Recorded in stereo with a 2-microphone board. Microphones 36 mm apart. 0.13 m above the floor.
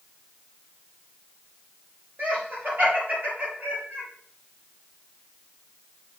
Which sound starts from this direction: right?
Laughter, at 2.2 s.